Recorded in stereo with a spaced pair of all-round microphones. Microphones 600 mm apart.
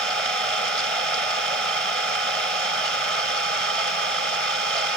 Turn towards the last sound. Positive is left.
turn(degrees=-60)  # may be behind; listen again after turning